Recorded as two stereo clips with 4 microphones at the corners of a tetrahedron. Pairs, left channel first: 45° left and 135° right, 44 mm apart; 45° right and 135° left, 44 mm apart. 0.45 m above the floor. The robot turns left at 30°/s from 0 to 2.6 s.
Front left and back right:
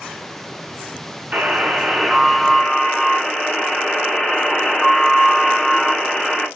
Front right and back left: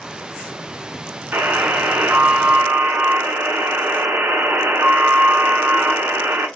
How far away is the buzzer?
About 0.8 m.